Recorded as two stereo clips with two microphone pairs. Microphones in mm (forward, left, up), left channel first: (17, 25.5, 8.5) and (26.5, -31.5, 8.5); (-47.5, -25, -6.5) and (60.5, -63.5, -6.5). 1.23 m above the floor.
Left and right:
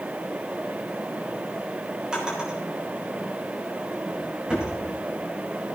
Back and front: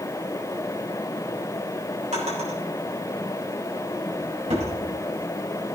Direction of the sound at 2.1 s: 10° right.